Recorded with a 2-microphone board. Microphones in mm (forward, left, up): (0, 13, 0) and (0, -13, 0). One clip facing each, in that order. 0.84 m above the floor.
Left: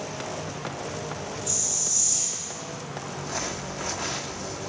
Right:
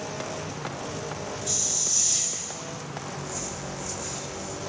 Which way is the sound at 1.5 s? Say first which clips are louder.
Right 3 dB; 25° right (ahead or behind).